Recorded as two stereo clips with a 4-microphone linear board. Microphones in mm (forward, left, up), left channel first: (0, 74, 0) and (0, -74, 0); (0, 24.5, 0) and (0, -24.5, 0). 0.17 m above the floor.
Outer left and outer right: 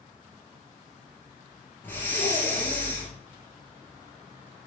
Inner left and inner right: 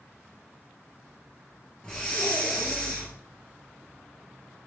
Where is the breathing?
15° left (ahead or behind), 2 m.